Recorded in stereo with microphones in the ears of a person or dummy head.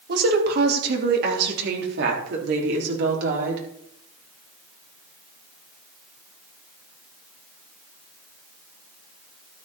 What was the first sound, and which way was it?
A woman speaking, 60° right (ahead or behind).